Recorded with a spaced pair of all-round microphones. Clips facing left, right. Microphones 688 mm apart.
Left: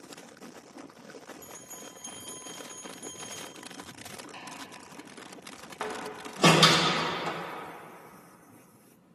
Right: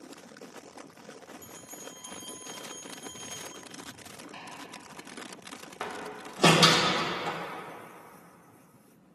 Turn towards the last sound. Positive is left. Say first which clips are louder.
# left 3 dB
turn(degrees=0)  # may be behind; listen again after turning